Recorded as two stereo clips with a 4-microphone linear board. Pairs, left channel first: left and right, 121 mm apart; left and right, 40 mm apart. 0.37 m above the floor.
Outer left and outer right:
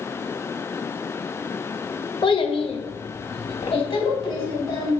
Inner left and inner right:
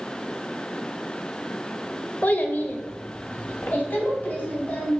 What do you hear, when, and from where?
2.2 s a child speaking: 40° left (ahead or behind), 0.7 m